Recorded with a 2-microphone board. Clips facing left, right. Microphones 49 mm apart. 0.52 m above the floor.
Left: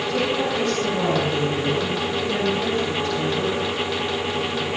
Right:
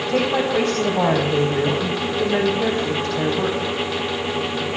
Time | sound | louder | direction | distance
0.1 | a woman speaking | right 4 dB | 60° right (ahead or behind) | 4 m